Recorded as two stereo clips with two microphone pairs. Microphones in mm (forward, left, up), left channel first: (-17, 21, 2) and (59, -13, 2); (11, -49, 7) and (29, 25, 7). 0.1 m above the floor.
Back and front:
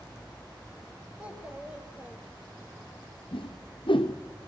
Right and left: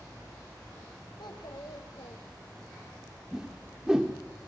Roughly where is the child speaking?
Right.